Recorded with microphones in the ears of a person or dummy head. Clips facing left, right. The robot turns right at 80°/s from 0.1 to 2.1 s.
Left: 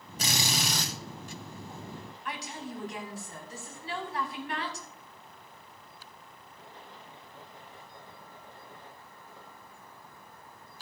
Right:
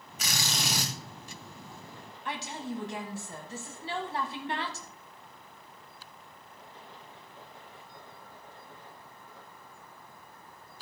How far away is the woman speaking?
About 1.7 m.